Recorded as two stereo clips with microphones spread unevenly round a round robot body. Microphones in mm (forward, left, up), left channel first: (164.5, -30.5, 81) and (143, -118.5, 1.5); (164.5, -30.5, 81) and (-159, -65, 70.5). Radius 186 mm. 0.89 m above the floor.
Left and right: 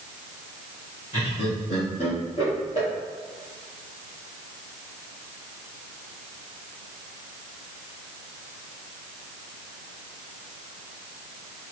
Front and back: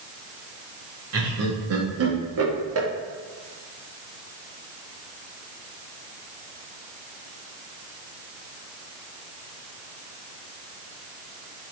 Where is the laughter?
145° left, 2 m.